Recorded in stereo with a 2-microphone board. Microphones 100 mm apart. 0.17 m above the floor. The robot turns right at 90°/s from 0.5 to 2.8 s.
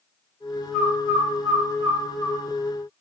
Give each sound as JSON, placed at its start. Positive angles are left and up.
{"t": 0.7, "sound": "a bird", "side_deg": 10, "distance_m": 1.6}